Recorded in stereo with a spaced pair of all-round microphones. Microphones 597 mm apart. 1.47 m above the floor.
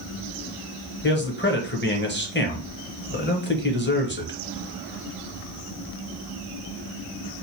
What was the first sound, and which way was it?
A man speaking, 20° left (ahead or behind).